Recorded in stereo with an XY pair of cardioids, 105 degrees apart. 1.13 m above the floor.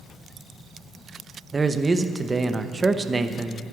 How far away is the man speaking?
About 0.8 m.